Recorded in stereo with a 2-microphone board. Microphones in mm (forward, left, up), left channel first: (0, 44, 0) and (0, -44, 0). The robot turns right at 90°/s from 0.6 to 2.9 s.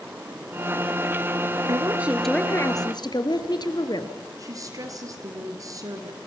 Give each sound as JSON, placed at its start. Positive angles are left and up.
{"t": 1.7, "sound": "a woman speaking", "azimuth_deg": -50, "distance_m": 2.5}
{"t": 4.4, "sound": "a woman speaking", "side_deg": -40, "distance_m": 4.0}